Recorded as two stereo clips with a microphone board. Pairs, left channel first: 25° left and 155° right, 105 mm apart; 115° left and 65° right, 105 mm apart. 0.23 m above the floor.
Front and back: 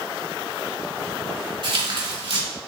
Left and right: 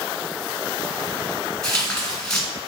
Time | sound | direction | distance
1.6 | tearing paper | 165° right | 2.0 m